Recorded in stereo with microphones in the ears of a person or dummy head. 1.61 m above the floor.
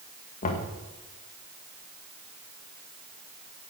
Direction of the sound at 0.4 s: 35° left (ahead or behind).